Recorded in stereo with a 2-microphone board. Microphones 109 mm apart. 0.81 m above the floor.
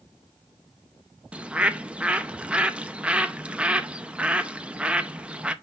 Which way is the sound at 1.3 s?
10° right (ahead or behind).